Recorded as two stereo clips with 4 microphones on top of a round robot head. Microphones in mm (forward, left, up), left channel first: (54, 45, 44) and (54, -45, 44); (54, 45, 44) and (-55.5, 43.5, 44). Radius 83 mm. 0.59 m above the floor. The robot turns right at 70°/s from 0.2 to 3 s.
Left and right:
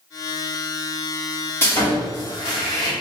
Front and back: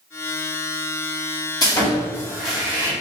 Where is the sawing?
35° left, 1.5 m; by 2.9 s 125° left, 1.5 m.